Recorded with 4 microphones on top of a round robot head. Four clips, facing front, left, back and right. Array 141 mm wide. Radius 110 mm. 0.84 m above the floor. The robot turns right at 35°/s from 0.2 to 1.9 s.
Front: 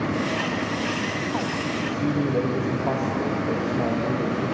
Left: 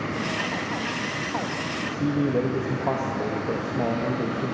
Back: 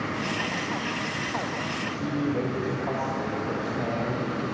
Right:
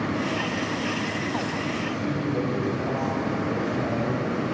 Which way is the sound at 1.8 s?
50° left.